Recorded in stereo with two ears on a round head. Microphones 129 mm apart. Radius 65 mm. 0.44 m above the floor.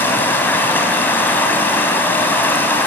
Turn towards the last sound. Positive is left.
turn(degrees=15)  # may be behind; listen again after turning